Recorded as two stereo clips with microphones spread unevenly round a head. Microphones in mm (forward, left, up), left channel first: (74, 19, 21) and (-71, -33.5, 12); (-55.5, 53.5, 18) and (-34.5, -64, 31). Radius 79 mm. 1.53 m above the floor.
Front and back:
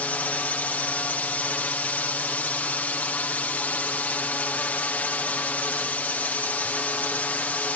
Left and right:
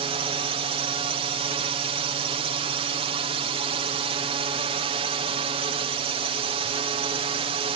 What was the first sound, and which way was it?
A drone, 60° right.